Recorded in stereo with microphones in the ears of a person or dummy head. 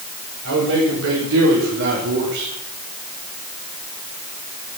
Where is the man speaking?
85° right, 6 m; by 2.5 s 60° right (ahead or behind), 3.5 m.